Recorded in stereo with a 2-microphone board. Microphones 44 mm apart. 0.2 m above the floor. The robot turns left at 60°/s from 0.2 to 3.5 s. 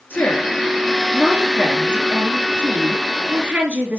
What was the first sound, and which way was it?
A woman speaking, 55° left.